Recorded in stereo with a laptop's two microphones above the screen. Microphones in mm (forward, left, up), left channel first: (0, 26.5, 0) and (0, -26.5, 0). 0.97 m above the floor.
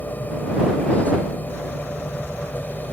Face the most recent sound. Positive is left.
turn(degrees=35)  # may be behind; listen again after turning